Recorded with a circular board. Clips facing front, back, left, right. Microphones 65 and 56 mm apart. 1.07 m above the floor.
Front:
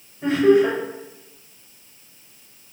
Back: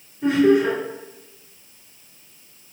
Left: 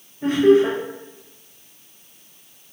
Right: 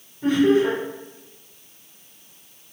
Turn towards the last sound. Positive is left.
turn(degrees=60)